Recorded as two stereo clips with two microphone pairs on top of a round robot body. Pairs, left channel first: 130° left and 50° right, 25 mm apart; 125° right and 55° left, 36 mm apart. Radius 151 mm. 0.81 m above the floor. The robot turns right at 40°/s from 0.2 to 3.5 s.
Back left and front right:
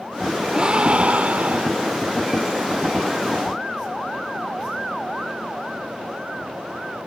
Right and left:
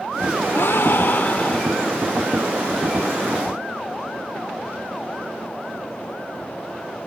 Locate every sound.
0.5 s a gasp: 105° right; by 2.0 s 50° right